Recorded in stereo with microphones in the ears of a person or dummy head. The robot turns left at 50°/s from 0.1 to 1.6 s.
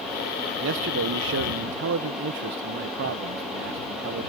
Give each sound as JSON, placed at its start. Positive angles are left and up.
{"t": 0.6, "sound": "a man speaking", "azimuth_deg": -65}